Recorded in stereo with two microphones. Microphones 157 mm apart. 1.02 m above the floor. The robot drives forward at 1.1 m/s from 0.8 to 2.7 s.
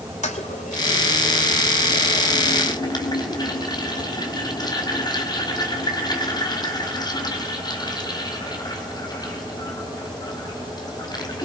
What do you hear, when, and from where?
0.2 s a toilet flushing: 50° left (ahead or behind), 2.5 m; by 11.5 s 25° left (ahead or behind), 4 m